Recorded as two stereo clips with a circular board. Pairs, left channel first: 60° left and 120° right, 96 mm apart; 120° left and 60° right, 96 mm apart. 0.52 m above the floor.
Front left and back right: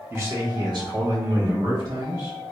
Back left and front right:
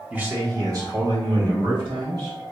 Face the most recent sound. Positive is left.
turn(degrees=-90)